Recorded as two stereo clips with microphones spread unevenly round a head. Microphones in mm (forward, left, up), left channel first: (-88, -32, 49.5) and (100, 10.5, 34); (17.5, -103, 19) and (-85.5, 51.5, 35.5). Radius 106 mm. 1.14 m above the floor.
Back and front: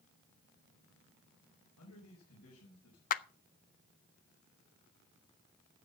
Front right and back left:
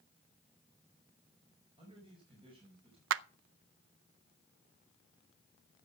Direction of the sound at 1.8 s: 175° right.